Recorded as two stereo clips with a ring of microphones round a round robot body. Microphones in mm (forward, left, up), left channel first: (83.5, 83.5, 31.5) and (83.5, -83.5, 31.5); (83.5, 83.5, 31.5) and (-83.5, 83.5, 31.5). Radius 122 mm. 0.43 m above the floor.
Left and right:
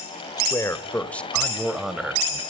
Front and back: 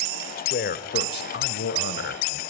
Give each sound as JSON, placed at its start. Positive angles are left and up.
{"t": 0.4, "sound": "a man speaking", "azimuth_deg": 20, "distance_m": 1.7}